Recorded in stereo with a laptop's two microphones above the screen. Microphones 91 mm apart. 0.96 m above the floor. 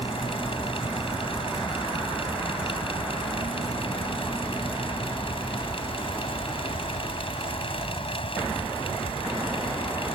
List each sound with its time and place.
0.0 s a fan: 80° left